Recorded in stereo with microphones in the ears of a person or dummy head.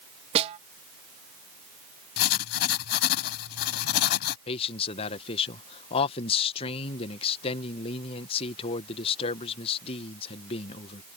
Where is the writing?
55° left (ahead or behind).